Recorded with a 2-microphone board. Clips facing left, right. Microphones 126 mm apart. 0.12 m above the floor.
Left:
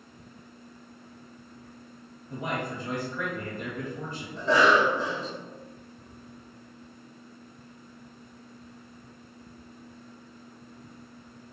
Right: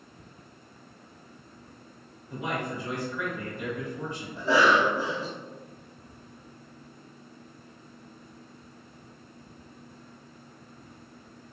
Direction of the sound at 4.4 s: 5° right (ahead or behind).